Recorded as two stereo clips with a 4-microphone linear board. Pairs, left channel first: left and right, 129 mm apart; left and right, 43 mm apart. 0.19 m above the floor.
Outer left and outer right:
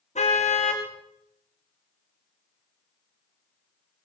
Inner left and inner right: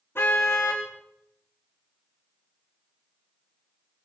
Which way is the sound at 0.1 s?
60° left (ahead or behind).